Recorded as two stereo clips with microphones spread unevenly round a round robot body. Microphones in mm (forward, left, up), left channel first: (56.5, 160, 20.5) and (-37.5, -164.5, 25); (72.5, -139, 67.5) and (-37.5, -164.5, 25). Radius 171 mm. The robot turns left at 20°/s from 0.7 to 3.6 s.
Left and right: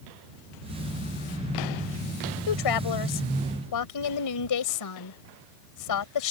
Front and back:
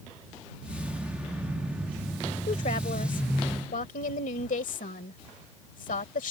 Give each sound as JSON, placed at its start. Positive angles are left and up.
{"t": 2.5, "sound": "a woman speaking", "azimuth_deg": 60}